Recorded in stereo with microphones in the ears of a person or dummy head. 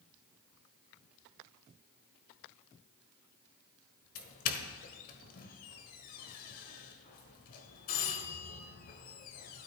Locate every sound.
4.2 s a doorbell: 45° left (ahead or behind), 1.2 m